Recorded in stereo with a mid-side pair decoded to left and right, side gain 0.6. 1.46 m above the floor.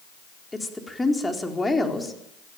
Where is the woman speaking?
10° left, 4 m.